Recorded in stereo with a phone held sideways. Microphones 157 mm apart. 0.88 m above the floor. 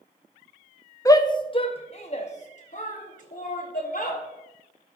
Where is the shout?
20° left (ahead or behind), 0.7 m; by 4.2 s 60° left (ahead or behind), 2 m.